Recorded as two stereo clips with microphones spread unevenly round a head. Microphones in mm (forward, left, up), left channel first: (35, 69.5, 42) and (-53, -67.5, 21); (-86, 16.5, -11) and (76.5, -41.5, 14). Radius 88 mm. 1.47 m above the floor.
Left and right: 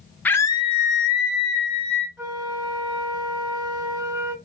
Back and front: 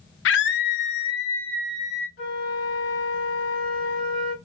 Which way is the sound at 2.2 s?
155° left.